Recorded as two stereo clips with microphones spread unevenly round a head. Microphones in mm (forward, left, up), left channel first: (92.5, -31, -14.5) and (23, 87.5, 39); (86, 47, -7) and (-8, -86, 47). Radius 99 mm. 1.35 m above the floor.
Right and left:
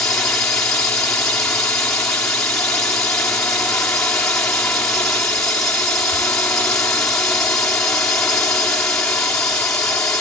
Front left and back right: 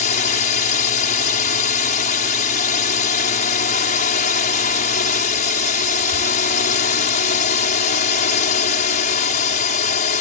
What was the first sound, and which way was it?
A drone, 20° left.